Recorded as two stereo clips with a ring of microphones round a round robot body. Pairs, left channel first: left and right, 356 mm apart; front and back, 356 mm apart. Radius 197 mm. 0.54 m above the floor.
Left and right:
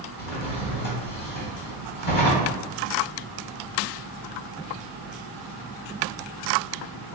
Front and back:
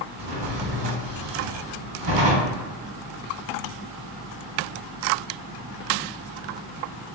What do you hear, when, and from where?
0.2 s a drawer: 155° left, 1.2 m